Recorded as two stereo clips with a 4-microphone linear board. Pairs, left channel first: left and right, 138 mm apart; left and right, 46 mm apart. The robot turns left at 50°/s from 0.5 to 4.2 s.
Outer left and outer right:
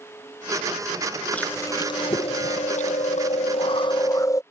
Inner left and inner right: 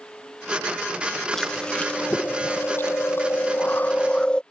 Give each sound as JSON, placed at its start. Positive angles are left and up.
{"t": 1.3, "sound": "chewing", "azimuth_deg": 170}